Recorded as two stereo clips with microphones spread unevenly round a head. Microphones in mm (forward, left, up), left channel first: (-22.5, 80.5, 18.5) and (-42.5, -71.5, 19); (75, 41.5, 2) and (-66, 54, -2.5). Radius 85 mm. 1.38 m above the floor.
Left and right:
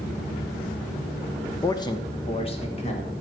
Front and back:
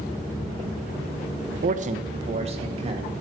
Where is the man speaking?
150° left, 0.9 m; by 3.1 s 130° left, 2.5 m.